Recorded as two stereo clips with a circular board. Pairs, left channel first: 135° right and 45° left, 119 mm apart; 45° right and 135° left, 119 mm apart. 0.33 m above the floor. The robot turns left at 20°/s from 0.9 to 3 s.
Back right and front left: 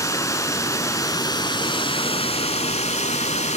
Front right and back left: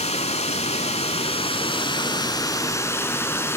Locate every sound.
0.0 s running water: 70° right, 0.8 m; by 3.6 s 115° right, 0.8 m